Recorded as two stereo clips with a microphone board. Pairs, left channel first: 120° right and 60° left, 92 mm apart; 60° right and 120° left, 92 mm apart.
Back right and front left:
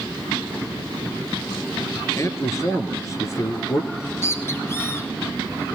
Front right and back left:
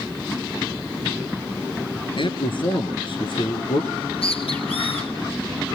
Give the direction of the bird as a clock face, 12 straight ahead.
2 o'clock.